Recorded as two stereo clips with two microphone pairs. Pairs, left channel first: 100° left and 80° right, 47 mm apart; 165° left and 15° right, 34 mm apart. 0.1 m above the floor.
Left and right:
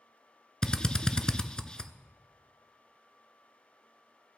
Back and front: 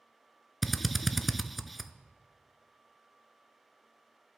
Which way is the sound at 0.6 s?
75° left.